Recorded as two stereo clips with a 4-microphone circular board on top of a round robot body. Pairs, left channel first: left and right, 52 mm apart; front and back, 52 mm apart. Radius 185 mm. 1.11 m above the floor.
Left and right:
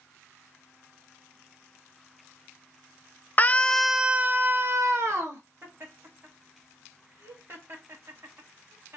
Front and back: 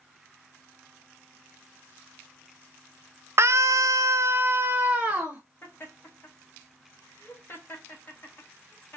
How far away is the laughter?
About 1.9 m.